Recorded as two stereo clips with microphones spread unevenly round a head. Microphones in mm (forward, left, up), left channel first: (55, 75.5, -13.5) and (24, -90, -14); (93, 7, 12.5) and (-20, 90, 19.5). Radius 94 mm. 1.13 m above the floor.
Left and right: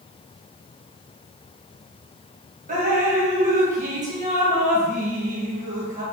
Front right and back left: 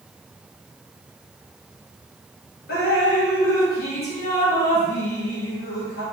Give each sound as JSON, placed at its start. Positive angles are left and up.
{"t": 2.7, "sound": "dripping", "azimuth_deg": -55, "distance_m": 1.0}